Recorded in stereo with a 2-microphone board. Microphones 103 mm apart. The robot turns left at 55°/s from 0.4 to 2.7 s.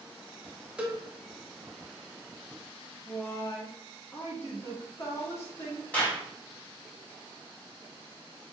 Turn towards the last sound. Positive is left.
turn(degrees=15)  # may be behind; listen again after turning